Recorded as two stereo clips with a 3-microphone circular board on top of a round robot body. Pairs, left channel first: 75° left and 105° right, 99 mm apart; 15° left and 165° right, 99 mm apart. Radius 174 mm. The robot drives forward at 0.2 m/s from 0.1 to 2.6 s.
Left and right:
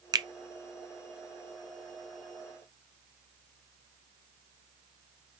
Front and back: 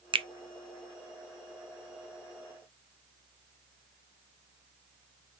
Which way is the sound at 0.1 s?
145° right.